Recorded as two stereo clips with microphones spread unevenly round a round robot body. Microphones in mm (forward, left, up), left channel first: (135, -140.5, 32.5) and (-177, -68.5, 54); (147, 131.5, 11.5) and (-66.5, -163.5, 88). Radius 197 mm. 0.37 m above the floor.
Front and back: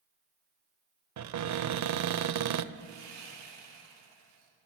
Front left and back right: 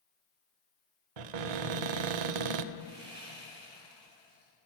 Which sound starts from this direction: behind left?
Sawing, at 2.7 s.